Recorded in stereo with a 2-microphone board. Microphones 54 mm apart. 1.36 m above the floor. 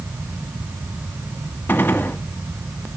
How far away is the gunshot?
About 1.6 m.